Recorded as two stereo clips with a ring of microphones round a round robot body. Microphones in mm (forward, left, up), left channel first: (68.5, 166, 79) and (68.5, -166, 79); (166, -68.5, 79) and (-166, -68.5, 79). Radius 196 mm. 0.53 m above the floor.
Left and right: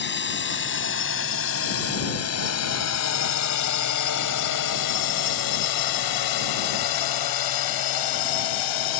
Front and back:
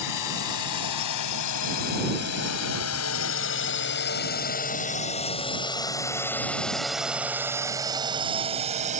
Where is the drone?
35° left; by 9.0 s 110° left.